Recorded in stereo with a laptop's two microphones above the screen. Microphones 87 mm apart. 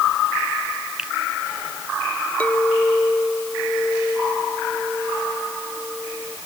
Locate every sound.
1.0 s a finger snap: 10° right (ahead or behind)
2.4 s a clink: 15° left (ahead or behind)